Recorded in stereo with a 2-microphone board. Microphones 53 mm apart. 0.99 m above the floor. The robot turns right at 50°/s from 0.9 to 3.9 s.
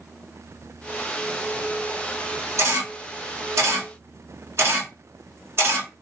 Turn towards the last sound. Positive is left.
turn(degrees=-50)  # may be behind; listen again after turning